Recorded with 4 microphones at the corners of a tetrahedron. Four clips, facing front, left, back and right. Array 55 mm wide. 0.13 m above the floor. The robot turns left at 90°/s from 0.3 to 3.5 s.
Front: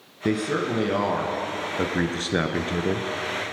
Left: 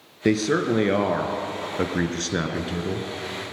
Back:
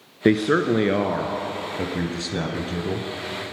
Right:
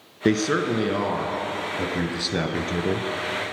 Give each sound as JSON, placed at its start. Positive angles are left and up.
{"t": 0.2, "sound": "a man speaking", "azimuth_deg": -165, "distance_m": 2.0}